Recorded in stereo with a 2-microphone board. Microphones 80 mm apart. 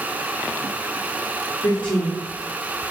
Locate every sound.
1.6 s a woman speaking: 70° left (ahead or behind), 1.2 m